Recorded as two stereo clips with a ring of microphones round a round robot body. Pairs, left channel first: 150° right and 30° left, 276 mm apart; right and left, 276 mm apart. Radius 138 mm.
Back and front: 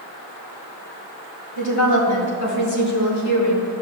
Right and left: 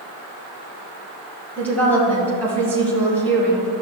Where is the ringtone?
I don't hear a ringtone.